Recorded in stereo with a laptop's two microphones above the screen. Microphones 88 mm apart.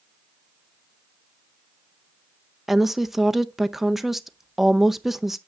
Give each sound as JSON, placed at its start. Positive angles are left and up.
{"t": 2.7, "sound": "a woman speaking", "side_deg": 0, "distance_m": 0.5}